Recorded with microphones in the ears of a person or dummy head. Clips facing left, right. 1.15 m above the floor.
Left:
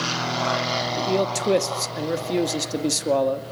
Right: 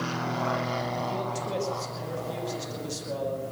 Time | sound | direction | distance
1.0 | a man speaking | 80° left | 2.5 m